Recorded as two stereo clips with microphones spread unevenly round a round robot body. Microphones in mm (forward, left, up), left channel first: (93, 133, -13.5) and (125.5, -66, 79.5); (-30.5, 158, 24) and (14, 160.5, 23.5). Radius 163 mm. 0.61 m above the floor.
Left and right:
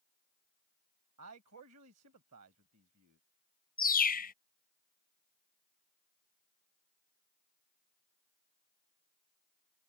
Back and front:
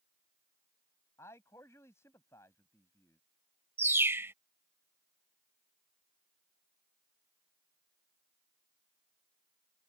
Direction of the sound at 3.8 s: 45° left.